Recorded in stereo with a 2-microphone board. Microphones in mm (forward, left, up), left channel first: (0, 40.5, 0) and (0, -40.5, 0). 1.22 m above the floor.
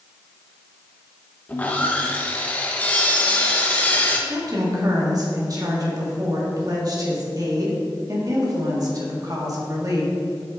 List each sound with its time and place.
1.5 s sawing: 20° left (ahead or behind), 0.9 m
4.3 s a woman speaking: 50° right (ahead or behind), 1.8 m